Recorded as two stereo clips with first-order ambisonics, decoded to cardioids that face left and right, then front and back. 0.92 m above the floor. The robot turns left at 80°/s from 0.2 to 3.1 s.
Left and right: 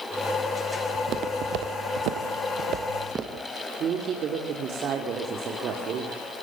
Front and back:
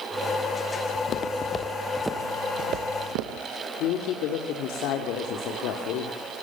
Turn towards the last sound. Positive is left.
turn(degrees=-35)